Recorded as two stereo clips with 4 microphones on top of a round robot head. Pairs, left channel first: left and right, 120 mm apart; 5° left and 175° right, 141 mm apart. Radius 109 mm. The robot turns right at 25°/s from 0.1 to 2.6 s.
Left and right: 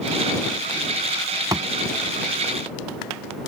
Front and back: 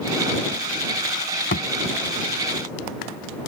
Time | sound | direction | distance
1.5 | a thud | 30° right | ?